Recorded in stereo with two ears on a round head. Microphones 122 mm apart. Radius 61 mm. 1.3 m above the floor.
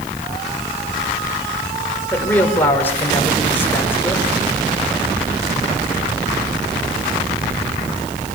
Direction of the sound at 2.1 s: 15° left (ahead or behind).